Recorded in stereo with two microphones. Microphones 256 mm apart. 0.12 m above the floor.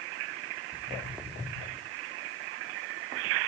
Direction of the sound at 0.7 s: Centre (ahead or behind).